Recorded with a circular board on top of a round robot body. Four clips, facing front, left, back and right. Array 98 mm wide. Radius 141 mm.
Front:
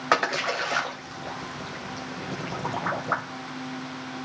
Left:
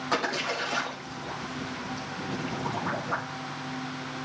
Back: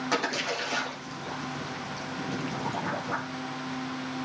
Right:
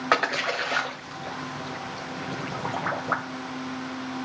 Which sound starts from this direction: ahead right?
A splash, at 0.1 s.